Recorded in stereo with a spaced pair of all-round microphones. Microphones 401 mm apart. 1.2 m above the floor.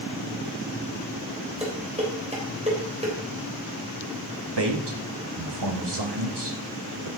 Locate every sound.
1.6 s dishes clattering: 15° right (ahead or behind), 3.5 m
4.6 s a man speaking: 85° right, 1.7 m